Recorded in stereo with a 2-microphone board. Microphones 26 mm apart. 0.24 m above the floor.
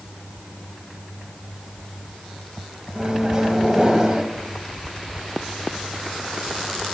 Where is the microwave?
25° right (ahead or behind), 1.0 m.